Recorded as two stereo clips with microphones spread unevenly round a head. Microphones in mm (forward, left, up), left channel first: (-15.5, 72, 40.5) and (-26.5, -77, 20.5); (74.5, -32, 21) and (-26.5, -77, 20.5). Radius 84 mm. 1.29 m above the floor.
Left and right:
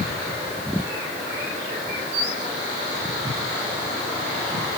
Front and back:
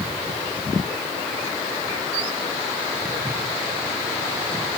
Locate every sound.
Only background noise.